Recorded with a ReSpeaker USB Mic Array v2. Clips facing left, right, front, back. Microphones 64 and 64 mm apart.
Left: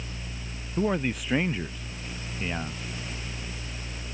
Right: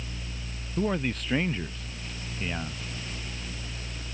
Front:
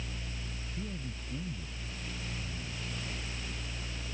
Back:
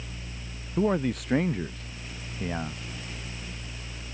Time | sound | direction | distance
0.8 | a man speaking | 170° left | ?